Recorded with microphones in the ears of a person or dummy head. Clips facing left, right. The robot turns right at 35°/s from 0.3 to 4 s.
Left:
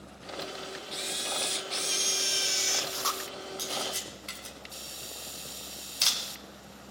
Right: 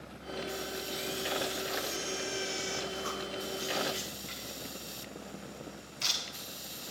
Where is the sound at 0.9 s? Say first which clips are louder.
Right 4 dB; 20° left, 0.7 m; by 3.2 s 100° left, 0.7 m.